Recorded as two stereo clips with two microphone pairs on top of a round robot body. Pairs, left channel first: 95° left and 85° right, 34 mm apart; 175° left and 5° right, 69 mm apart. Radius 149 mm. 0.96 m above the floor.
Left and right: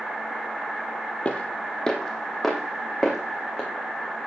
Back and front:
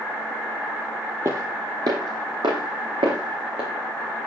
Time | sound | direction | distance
1.2 | footsteps | 40° left | 1.5 m